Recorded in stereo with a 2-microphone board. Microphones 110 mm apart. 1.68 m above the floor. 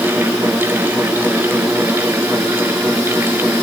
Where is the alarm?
I don't hear an alarm.